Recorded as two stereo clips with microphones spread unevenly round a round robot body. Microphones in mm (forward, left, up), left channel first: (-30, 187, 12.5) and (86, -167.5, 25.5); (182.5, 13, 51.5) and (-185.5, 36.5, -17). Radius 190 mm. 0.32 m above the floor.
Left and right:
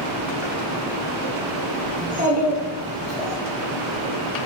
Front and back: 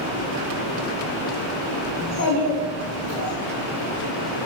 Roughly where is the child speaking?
Ahead.